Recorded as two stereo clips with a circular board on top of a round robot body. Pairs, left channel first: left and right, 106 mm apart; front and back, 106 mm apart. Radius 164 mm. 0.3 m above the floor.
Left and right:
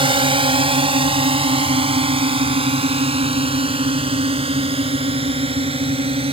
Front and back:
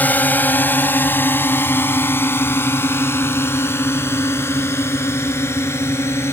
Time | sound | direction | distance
0.0 | a drone | 70° right | ?